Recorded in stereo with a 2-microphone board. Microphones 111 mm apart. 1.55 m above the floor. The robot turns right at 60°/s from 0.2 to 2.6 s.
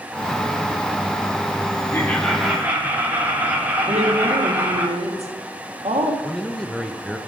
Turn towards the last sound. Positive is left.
turn(degrees=5)  # may be behind; listen again after turning